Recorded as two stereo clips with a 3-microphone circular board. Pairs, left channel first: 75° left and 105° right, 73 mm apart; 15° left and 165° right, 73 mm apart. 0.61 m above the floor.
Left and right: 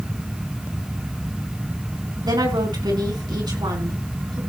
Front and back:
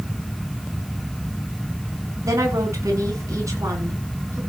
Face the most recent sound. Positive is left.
turn(degrees=-120)